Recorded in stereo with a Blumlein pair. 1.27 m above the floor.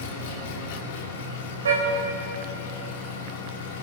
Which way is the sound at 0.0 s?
55° left.